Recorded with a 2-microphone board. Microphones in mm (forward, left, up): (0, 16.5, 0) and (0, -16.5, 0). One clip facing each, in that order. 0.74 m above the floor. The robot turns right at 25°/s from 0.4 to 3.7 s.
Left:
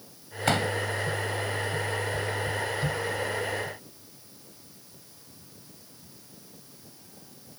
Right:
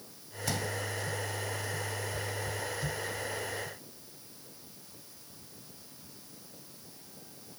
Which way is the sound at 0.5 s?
55° left (ahead or behind).